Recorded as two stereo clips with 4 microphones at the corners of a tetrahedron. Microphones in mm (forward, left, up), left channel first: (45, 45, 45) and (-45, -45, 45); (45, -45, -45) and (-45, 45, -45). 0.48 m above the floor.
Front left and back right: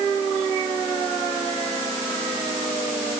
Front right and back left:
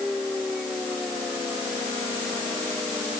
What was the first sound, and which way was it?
Only background noise.